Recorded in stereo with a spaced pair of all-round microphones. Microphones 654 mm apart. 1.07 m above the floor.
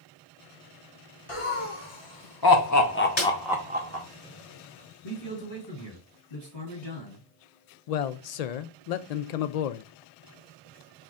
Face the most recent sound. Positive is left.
turn(degrees=70)  # may be behind; listen again after turning